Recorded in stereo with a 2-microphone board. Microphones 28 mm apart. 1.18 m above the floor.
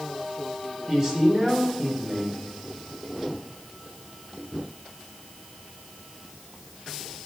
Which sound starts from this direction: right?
A man speaking, at 0.9 s.